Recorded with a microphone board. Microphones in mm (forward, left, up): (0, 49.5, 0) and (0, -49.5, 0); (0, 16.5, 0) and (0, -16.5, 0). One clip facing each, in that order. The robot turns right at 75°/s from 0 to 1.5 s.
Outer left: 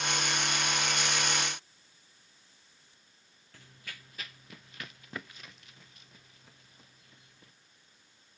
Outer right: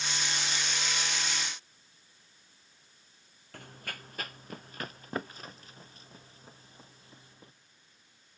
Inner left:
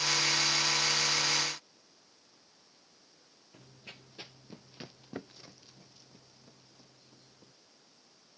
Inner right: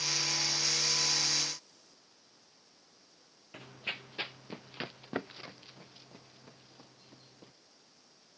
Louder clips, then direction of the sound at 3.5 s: Outer right 7 dB, inner right 12 dB; 50° right (ahead or behind).